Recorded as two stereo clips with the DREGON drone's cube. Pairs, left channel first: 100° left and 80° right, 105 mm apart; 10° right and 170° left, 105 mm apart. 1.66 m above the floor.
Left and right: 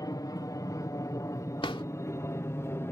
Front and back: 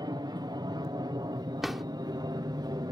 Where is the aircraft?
140° left; by 2.9 s 155° left.